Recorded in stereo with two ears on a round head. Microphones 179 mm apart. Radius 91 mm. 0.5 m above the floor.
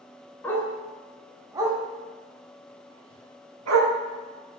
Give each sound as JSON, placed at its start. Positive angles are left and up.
{"t": 0.4, "sound": "a dog barking", "side_deg": 10, "distance_m": 1.1}